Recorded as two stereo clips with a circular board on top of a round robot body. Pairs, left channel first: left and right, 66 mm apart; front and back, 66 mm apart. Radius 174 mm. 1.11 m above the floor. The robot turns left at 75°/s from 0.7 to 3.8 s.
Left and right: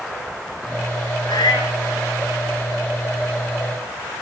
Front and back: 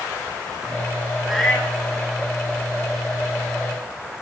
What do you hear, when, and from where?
1.2 s a cat meowing: 95° left, 2.5 m; by 1.8 s 55° left, 2.5 m